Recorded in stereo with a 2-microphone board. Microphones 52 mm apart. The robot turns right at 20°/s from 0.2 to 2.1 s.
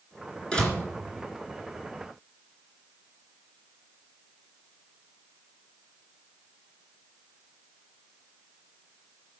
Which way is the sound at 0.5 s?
15° left (ahead or behind).